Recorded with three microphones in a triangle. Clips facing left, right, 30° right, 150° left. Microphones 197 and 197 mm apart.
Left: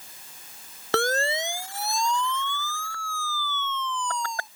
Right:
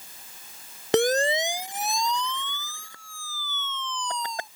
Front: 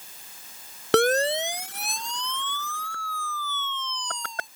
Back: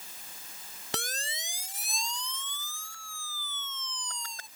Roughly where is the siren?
Ahead.